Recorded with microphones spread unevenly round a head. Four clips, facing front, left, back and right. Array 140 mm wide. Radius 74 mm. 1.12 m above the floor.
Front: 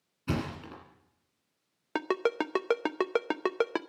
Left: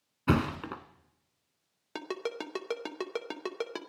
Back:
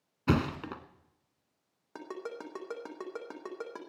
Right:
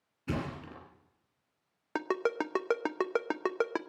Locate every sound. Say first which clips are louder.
0.3 s a thud: left 8 dB, back 5 dB; 145° left, 1.5 m
1.9 s a ringtone: right 5 dB, front 12 dB; 15° right, 0.7 m